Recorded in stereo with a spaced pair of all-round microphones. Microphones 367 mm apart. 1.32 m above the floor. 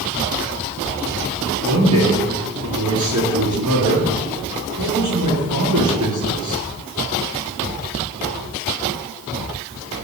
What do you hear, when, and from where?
1.6 s a man speaking: 55° right (ahead or behind), 10 m